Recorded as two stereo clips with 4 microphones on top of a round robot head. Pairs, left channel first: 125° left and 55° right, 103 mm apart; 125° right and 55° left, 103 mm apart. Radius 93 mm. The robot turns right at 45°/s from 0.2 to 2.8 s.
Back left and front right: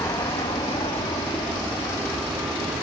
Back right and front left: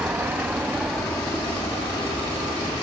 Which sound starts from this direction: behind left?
An aircraft, at 0.0 s.